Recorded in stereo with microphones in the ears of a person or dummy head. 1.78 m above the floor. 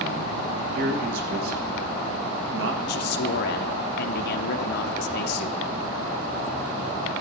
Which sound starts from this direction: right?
A man speaking, at 0.8 s.